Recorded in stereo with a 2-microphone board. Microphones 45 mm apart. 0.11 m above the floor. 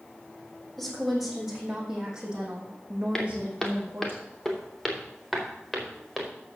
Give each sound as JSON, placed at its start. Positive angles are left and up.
{"t": 0.8, "sound": "a woman speaking", "side_deg": 0, "distance_m": 4.0}
{"t": 3.1, "sound": "footsteps", "side_deg": 10, "distance_m": 3.0}